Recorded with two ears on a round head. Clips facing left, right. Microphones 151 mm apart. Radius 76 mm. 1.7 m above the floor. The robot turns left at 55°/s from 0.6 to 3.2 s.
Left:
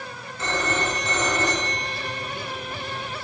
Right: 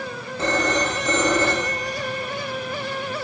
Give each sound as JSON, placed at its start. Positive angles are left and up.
{"t": 0.4, "sound": "a phone ringing", "azimuth_deg": -50, "distance_m": 2.5}